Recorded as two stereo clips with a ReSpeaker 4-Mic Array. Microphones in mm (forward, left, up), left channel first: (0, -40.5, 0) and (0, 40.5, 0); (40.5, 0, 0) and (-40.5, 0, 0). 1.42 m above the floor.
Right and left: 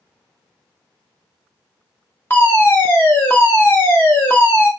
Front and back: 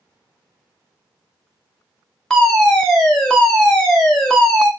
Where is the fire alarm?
75° right, 0.7 m.